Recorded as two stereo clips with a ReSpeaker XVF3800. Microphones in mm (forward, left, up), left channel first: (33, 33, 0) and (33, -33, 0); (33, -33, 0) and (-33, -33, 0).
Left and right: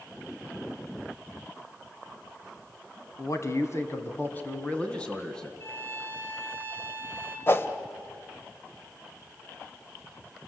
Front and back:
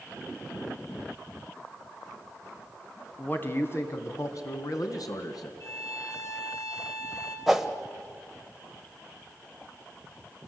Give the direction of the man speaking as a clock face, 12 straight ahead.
10 o'clock.